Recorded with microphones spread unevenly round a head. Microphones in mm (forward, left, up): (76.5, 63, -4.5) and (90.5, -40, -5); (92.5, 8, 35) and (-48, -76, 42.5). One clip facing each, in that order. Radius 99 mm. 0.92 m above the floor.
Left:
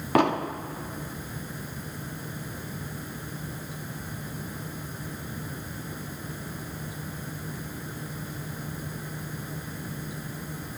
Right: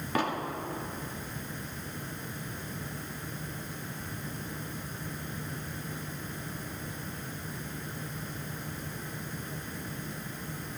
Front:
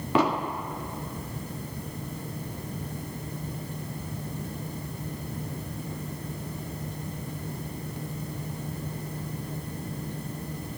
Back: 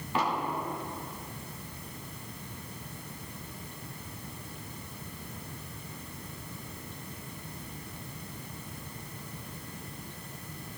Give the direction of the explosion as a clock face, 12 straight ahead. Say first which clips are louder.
Left 8 dB, front 6 dB; 10 o'clock.